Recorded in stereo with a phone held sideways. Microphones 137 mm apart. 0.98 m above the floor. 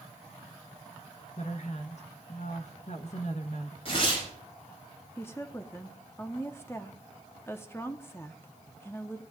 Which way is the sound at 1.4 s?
55° left (ahead or behind).